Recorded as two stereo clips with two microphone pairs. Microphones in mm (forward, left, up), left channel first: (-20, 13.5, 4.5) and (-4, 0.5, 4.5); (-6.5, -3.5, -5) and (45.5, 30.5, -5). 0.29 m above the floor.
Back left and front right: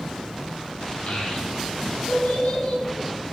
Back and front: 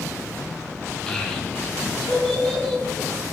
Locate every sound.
1.1 s a child speaking: 135° left, 0.9 m